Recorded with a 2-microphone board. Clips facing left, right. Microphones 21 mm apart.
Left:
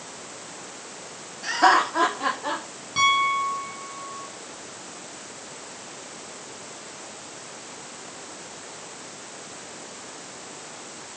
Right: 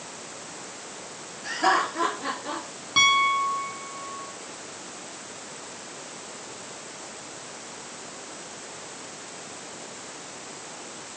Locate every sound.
1.4 s laughter: 70° left (ahead or behind), 5 m; by 2.6 s 75° left (ahead or behind), 6.5 m
3.0 s a piano: 25° right (ahead or behind), 1.9 m